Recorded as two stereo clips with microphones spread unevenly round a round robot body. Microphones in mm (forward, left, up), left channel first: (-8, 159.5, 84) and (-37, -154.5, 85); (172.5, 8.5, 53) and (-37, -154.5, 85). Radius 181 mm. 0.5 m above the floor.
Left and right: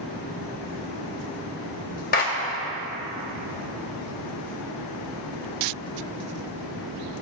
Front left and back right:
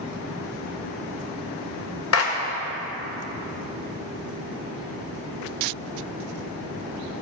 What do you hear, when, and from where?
2.1 s a clap: 25° left, 1.7 m